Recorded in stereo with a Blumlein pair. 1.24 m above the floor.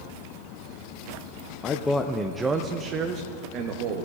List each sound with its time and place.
1.6 s a man speaking: 25° left, 0.6 m; by 4.0 s 45° right, 1.3 m